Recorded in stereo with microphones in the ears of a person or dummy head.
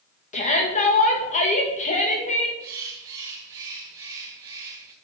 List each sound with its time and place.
0.3 s a shout: 35° left (ahead or behind), 1.7 m
2.6 s a bird: 20° right (ahead or behind), 1.4 m